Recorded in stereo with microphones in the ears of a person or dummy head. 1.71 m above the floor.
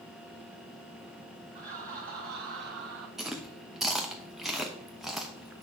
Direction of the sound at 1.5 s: 40° right (ahead or behind).